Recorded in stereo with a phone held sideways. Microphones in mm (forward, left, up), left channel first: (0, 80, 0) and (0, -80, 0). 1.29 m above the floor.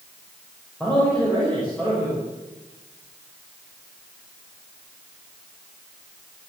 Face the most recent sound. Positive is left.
turn(degrees=5)  # may be behind; listen again after turning